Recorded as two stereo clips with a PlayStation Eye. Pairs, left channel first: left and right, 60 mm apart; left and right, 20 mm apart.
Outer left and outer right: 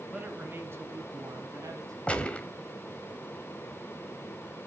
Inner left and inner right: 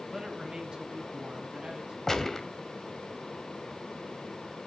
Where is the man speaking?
25° right (ahead or behind), 1.1 m; by 2.0 s 65° right (ahead or behind), 2.5 m.